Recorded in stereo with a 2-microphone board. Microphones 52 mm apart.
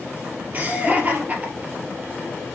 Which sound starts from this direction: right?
Laughter, at 0.5 s.